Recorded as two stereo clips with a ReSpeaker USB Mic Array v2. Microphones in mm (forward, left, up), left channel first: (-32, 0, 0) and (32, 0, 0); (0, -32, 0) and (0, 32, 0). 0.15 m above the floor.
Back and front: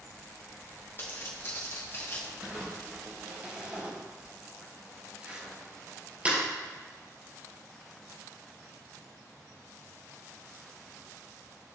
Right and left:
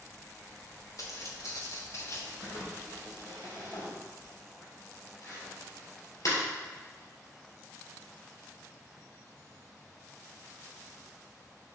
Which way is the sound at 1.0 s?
125° right.